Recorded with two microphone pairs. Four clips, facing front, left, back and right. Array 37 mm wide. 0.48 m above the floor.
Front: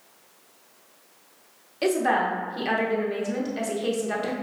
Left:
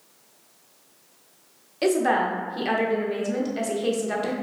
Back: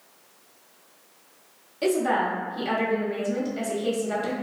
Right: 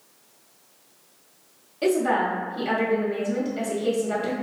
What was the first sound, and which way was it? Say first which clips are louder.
A woman speaking: even, front 1 dB; 50° left.